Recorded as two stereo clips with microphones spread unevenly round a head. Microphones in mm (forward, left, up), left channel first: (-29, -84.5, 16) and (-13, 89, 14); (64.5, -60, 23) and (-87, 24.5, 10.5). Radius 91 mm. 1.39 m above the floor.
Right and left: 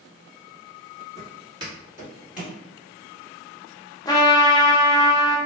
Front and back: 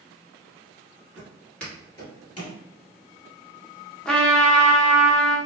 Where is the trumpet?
100° right, 0.6 m.